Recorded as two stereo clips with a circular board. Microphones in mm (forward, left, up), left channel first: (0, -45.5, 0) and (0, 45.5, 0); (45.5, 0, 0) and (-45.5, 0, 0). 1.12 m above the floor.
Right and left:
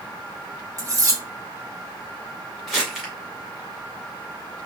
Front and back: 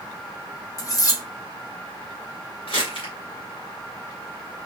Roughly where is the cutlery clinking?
Ahead left.